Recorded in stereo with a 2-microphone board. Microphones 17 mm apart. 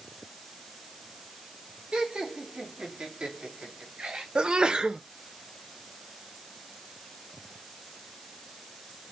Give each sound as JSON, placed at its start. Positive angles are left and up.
{"t": 1.9, "sound": "laughter", "side_deg": -70, "distance_m": 4.5}
{"t": 4.3, "sound": "a sneeze", "side_deg": -55, "distance_m": 1.1}